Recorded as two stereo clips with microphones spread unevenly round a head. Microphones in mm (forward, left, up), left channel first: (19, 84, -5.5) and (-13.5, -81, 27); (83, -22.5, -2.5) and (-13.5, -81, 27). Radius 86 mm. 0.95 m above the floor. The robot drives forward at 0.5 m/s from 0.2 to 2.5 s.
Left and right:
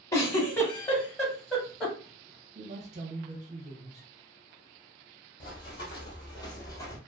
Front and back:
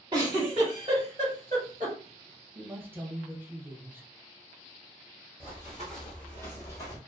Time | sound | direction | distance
0.1 | a giggle | 155° left | 0.7 m
2.5 | a man speaking | 65° right | 0.5 m
5.4 | running footsteps | 150° left | 1.2 m